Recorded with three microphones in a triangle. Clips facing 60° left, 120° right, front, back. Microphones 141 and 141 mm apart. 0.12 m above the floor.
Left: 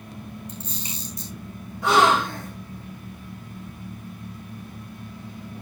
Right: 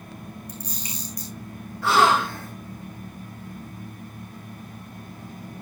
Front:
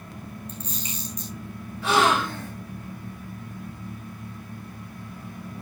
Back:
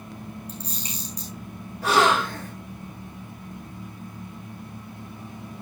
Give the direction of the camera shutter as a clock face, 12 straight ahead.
8 o'clock.